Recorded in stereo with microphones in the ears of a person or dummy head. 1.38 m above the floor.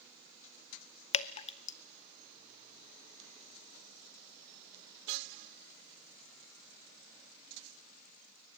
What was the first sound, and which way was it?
Dripping, 35° left (ahead or behind).